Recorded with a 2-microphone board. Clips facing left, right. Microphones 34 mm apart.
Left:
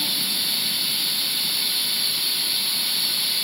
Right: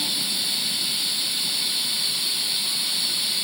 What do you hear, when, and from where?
0.0 s running water: 10° left (ahead or behind)